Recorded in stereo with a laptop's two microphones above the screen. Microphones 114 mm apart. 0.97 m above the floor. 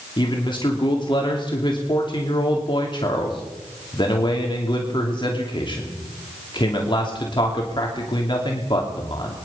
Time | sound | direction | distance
0.2 | a man speaking | 40° left (ahead or behind) | 3 m